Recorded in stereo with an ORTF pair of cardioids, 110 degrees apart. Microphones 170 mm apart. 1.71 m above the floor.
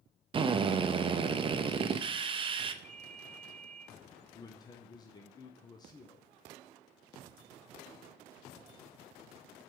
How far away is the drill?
About 0.6 m.